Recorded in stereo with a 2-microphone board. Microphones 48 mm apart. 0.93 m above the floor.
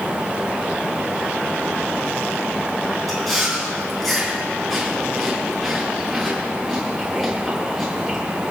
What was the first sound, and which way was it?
Chewing, centre (ahead or behind).